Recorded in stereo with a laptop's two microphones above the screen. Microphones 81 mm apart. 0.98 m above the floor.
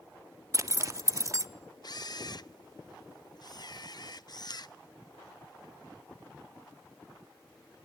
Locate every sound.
0.5 s a zipper: 35° right (ahead or behind), 0.6 m
1.8 s a camera shutter: 50° left (ahead or behind), 0.6 m